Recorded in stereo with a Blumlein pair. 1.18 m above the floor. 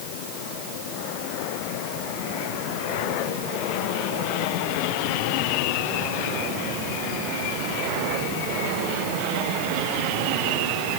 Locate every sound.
Only background noise.